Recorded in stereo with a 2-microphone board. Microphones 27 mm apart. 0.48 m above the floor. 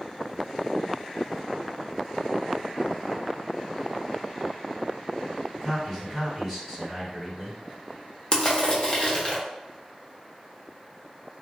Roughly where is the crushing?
Left.